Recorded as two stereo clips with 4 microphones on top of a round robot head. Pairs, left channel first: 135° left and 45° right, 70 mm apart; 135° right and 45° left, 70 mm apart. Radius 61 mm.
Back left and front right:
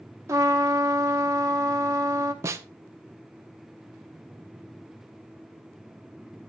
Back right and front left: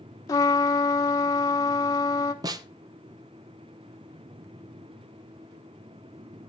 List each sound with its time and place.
0.3 s a trumpet: 100° right, 1.1 m
2.4 s a snare drum: 10° left, 0.8 m